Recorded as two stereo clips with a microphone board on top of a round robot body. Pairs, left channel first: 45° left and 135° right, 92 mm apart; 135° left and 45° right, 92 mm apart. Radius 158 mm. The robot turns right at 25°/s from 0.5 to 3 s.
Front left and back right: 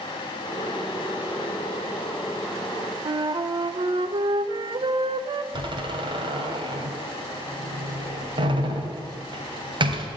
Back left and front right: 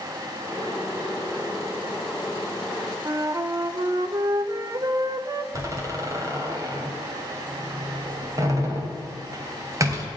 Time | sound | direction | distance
3.0 | a flute | 100° right | 0.6 m
5.5 | a door slam | 100° right | 2.5 m